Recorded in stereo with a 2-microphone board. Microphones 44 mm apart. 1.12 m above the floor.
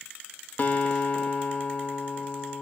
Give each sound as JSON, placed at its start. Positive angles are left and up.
{"t": 0.6, "sound": "a guitar", "side_deg": 35, "distance_m": 0.6}